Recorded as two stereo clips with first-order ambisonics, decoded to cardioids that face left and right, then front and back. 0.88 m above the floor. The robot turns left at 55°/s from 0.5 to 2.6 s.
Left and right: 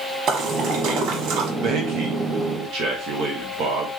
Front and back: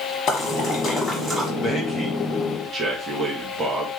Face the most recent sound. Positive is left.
turn(degrees=-115)